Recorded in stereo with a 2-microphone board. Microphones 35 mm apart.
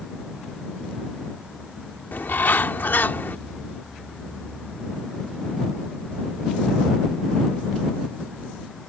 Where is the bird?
80° left.